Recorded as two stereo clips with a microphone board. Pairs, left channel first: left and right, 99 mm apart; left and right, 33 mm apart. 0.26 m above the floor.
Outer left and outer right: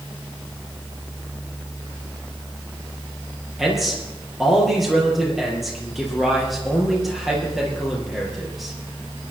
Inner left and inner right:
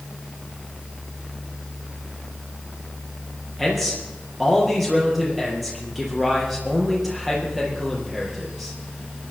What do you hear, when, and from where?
3.6 s a man speaking: centre (ahead or behind), 6 m